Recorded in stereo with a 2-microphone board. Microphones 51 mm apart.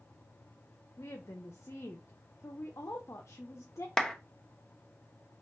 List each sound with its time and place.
1.0 s a woman speaking: 65° left (ahead or behind), 0.7 m
4.0 s a clap: 15° left (ahead or behind), 0.9 m